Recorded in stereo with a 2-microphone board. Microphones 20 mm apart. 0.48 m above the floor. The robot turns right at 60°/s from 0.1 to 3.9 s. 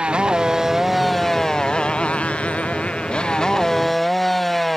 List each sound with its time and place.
0.0 s a motorcycle: 60° right; by 4.8 s 170° left